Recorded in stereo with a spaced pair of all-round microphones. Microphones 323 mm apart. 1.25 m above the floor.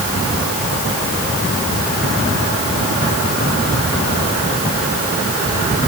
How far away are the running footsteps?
I don't hear running footsteps.